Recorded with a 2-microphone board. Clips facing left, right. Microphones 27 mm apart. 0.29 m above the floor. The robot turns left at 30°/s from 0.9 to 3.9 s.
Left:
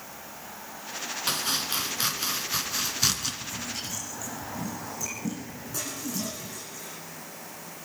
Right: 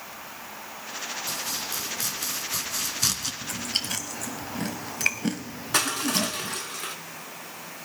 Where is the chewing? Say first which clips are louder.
Right 5 dB; 85° right, 1.3 m; by 6.6 s 75° right (ahead or behind), 1.3 m.